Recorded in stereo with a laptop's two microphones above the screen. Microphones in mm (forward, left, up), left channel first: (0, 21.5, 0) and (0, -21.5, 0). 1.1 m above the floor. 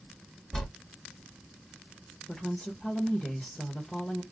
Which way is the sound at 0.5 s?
5° left (ahead or behind).